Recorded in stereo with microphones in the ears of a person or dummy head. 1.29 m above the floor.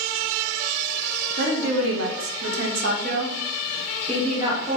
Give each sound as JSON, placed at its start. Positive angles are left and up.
{"t": 1.4, "sound": "a woman speaking", "side_deg": -65, "distance_m": 1.0}